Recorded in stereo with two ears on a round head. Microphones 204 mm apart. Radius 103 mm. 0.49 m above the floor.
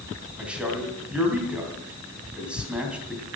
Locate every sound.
0.4 s a man speaking: 5° right (ahead or behind), 3 m